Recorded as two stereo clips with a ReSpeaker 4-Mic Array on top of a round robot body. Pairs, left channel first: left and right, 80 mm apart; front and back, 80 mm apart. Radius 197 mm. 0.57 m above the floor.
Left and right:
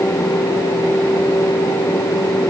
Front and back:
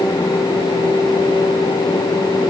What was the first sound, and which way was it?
Only background noise.